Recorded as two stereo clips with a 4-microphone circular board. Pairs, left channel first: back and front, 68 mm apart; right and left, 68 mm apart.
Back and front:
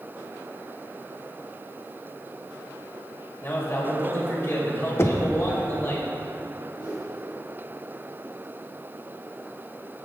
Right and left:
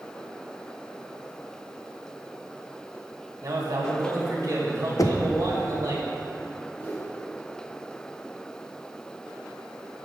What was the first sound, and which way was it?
A man speaking, 130° left.